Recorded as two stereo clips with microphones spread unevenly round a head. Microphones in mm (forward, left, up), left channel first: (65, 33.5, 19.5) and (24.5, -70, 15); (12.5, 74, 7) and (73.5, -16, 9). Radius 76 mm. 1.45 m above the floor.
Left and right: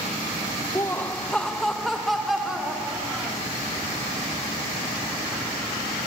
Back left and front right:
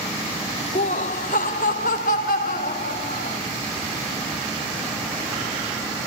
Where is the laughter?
135° left, 0.5 m; by 3.4 s 160° left, 3 m.